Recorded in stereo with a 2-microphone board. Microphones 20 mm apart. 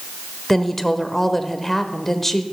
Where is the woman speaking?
15° left (ahead or behind), 0.9 m.